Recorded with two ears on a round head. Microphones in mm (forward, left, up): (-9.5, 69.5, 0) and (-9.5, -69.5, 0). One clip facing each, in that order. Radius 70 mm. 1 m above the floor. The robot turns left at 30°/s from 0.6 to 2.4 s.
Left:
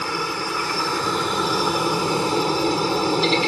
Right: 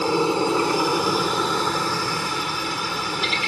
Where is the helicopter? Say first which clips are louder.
Right 7 dB; 155° right; by 3.5 s 150° left.